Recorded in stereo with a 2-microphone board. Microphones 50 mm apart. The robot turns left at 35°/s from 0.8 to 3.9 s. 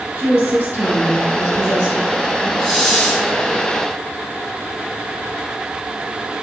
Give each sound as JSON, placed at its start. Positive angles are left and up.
{"t": 0.1, "sound": "a woman speaking", "azimuth_deg": -95, "distance_m": 1.8}
{"t": 2.6, "sound": "a hiss", "side_deg": 5, "distance_m": 0.9}